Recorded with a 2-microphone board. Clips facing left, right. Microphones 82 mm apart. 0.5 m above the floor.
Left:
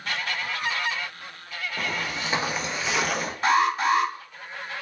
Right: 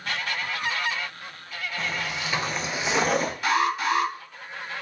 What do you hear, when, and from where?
1.8 s footsteps: 60° left (ahead or behind), 0.9 m; by 3.3 s 45° right (ahead or behind), 0.9 m
3.4 s an alarm: 35° left (ahead or behind), 1.1 m